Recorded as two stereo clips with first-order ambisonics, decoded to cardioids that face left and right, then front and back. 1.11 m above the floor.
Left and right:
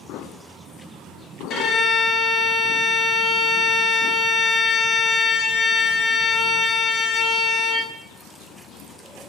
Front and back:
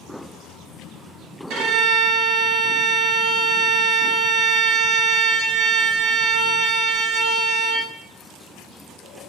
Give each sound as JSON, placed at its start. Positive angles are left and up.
{"t": 1.5, "sound": "a violin", "azimuth_deg": 140, "distance_m": 0.8}